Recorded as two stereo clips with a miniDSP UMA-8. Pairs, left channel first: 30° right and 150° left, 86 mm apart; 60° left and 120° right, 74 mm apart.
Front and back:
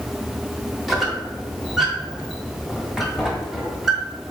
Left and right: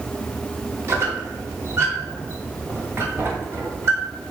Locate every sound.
0.9 s a squeak: 125° right, 1.0 m